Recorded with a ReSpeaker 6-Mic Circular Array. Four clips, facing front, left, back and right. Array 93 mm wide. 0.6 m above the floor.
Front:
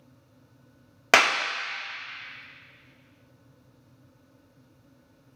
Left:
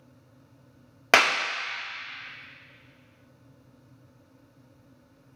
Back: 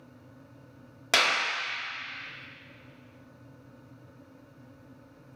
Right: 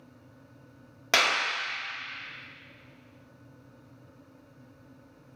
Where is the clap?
40° left, 1.1 m.